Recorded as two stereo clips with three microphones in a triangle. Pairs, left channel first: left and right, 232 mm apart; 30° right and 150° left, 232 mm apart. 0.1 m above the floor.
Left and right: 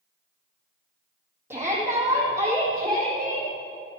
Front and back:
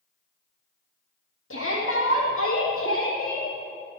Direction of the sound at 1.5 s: 10° right.